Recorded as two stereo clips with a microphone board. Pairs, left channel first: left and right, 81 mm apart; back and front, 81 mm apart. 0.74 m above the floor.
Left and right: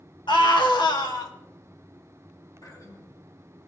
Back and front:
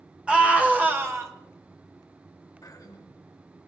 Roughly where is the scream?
Left.